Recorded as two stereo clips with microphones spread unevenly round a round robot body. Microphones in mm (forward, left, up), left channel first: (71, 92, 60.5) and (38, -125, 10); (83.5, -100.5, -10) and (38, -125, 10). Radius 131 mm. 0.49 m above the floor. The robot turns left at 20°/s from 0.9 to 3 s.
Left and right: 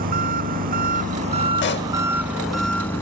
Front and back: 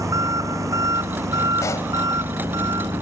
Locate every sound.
0.0 s an engine running: 155° right; by 3.0 s 160° left
1.6 s a pop: 45° left; by 1.9 s 35° left